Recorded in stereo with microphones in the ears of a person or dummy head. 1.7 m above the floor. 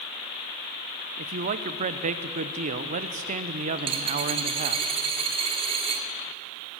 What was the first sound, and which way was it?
A man speaking, 35° right (ahead or behind).